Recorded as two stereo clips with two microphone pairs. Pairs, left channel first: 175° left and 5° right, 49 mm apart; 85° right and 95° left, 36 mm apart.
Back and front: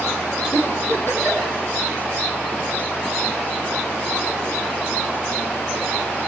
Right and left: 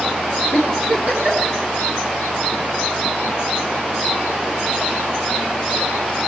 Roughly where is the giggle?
Behind left.